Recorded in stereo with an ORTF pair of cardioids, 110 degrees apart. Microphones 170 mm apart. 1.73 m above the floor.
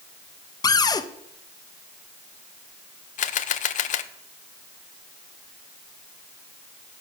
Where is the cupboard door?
20° left, 1.2 m.